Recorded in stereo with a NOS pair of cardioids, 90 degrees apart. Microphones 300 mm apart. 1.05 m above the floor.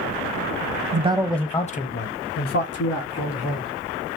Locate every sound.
0.9 s a man speaking: 30° right, 0.8 m; by 3.7 s 65° left, 2.5 m